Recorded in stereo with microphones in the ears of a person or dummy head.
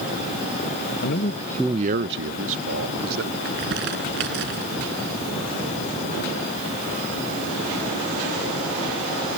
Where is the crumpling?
60° right (ahead or behind).